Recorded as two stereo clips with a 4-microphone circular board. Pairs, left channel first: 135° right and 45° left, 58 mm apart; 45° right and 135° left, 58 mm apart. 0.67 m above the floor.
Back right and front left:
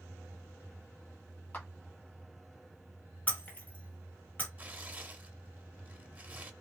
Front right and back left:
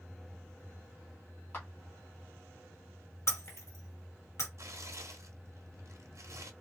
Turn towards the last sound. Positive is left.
turn(degrees=110)